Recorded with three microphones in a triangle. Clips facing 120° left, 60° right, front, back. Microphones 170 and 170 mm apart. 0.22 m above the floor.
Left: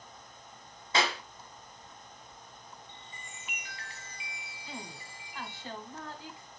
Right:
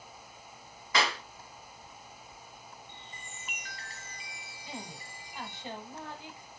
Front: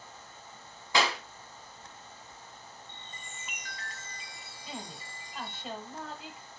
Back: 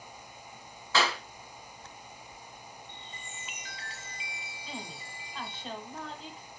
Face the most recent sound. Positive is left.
turn(degrees=-80)